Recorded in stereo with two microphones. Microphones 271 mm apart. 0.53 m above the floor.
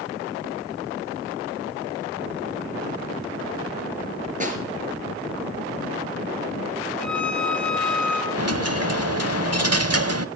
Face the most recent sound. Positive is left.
turn(degrees=-65)  # may be behind; listen again after turning